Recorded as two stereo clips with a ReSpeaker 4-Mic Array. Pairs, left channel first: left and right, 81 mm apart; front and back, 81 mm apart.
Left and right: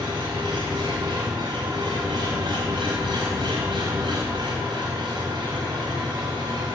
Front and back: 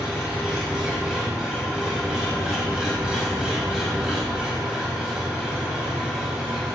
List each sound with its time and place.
0.0 s an engine running: 100° right, 4.5 m